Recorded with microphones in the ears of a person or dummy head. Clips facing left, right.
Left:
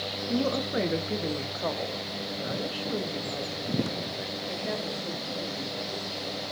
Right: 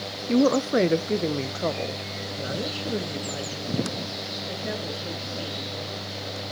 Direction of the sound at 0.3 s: 70° right (ahead or behind).